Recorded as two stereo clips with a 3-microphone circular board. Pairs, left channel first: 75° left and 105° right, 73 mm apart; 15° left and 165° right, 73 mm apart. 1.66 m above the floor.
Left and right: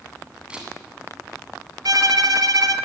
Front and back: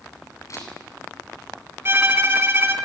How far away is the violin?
About 3 m.